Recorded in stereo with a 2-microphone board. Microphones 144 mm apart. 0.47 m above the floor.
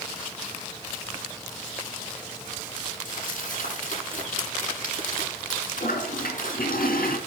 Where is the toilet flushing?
80° left, 3.5 m.